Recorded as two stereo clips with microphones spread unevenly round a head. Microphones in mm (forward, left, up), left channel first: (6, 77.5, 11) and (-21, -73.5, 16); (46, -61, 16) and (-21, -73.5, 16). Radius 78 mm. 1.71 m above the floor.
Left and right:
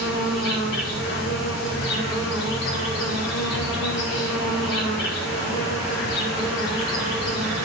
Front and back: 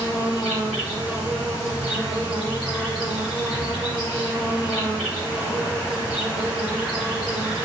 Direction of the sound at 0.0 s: 100° left.